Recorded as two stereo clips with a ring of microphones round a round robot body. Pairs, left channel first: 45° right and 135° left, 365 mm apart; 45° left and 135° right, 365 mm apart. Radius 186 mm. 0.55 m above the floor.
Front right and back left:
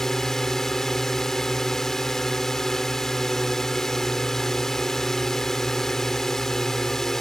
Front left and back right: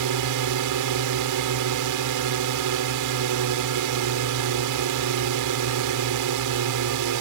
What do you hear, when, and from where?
0.0 s a drone: 135° right